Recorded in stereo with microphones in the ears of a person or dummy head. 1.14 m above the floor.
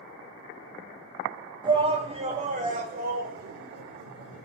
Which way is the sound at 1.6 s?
25° right (ahead or behind).